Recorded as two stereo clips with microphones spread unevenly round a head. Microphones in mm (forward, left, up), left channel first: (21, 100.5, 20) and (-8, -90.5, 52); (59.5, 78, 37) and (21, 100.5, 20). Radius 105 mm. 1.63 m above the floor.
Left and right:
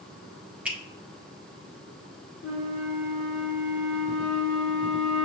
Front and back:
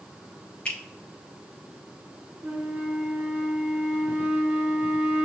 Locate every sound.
0.7 s a finger snap: 30° right, 0.8 m
2.4 s a flute: 75° left, 1.3 m